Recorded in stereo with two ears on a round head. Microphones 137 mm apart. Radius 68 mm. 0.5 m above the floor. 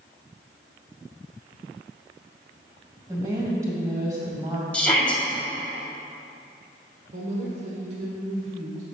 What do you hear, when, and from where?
3.1 s a woman speaking: 20° right (ahead or behind), 2.5 m
4.7 s a shout: 5° left (ahead or behind), 2 m
7.1 s a woman speaking: 50° right (ahead or behind), 1.4 m